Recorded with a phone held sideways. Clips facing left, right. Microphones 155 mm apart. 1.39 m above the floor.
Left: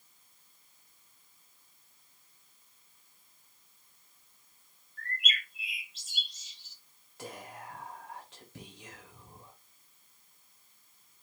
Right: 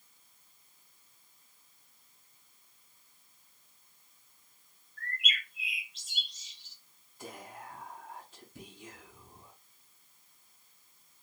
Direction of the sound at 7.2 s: 75° left (ahead or behind).